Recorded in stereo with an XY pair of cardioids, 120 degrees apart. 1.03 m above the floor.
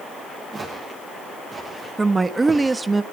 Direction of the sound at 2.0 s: 20° right.